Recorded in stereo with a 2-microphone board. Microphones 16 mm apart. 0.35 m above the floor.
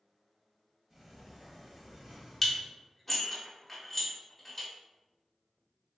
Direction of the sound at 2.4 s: 10° left (ahead or behind).